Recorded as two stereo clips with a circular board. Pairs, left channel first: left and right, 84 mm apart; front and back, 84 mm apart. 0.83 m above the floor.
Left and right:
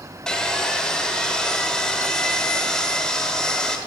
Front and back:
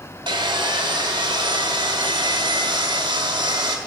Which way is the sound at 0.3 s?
170° left.